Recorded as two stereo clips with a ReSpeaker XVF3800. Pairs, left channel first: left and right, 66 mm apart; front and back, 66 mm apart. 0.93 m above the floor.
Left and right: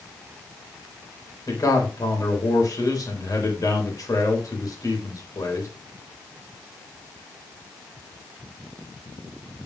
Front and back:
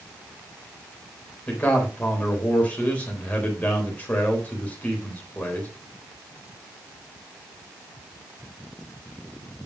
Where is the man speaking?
65° left, 4 m.